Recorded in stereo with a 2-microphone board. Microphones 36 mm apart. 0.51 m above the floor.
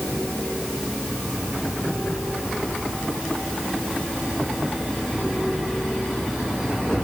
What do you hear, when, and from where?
Only background noise.